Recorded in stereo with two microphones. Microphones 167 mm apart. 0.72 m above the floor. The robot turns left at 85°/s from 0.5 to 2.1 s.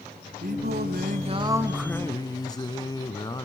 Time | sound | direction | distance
0.4 | singing | 70° right | 1.0 m